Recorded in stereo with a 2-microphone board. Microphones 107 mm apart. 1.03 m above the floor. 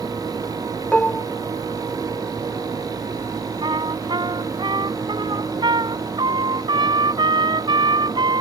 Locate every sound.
0.9 s dishes clattering: 10° left (ahead or behind)
3.6 s a trumpet: 45° right (ahead or behind)